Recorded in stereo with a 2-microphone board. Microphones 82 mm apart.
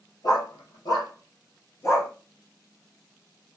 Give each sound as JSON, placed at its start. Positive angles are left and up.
{"t": 0.2, "sound": "a dog barking", "side_deg": 55, "distance_m": 2.5}